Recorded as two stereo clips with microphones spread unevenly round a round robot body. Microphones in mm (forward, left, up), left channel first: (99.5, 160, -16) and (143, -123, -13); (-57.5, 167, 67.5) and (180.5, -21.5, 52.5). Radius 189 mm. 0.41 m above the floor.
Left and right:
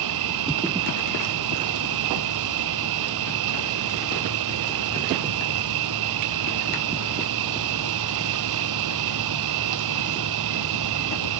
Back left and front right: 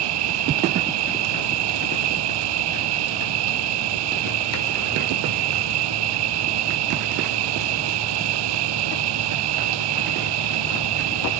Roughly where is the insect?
Ahead right.